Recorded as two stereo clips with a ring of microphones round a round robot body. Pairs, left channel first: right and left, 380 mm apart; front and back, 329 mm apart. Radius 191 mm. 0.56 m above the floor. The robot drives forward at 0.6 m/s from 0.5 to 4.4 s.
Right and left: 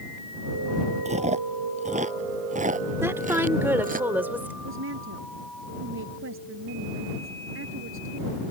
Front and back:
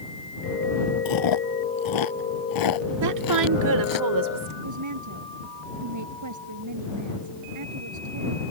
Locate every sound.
1.1 s chewing: 15° left; by 4.0 s 20° left
3.0 s a woman speaking: 170° left; by 4.5 s 175° left
4.6 s a woman speaking: 150° left